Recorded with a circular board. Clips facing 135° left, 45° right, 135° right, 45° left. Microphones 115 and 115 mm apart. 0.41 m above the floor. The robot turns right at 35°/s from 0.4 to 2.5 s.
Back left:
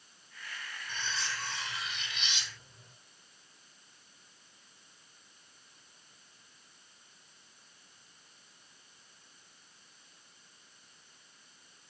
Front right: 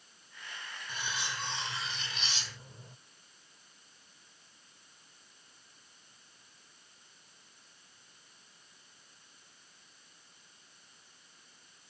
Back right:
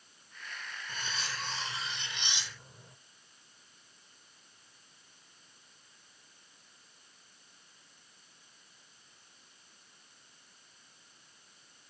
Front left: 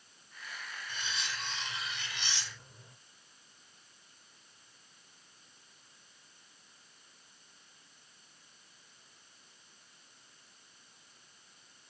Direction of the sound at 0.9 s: 120° right.